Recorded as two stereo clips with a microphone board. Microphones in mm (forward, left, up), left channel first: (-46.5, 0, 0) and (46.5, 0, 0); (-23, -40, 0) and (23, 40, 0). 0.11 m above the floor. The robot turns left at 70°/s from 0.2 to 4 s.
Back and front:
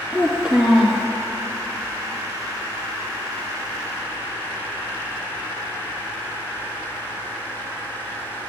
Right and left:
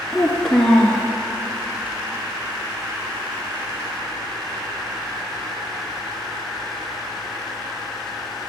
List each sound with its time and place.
0.1 s a child speaking: 30° right, 0.8 m; by 1.1 s 90° right, 0.8 m